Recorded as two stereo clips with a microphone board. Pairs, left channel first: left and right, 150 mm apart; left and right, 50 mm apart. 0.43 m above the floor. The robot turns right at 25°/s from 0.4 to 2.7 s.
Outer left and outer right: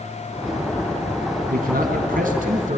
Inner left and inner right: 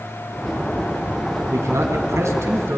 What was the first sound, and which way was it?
A man speaking, 95° right.